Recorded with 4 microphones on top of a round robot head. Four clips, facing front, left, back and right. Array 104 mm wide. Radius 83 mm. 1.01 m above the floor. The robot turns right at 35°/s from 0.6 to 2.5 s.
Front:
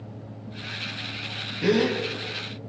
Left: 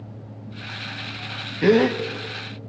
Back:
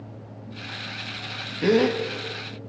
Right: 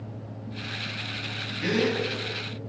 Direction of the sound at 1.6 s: 105° left.